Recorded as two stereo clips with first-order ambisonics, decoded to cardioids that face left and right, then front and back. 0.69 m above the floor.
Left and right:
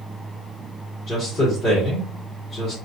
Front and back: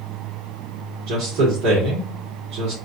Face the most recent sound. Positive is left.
turn(degrees=155)